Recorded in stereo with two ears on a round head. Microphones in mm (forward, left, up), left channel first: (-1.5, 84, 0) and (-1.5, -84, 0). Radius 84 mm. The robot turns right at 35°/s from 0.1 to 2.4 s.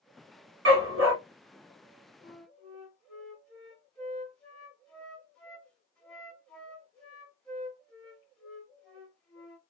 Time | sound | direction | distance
0.7 | a dog barking | 70° right (ahead or behind) | 1.3 m
2.2 | a flute | centre (ahead or behind) | 0.9 m